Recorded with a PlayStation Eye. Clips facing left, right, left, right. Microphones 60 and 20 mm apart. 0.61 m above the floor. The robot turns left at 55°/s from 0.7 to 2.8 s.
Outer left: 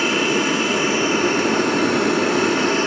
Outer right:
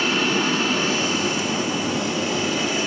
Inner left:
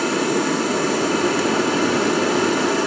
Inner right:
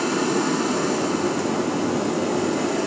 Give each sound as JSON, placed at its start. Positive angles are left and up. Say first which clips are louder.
{"t": 0.0, "sound": "running water", "louder": "outer left 2 dB, inner left 2 dB", "azimuth_deg": 165, "distance_m": 1.3}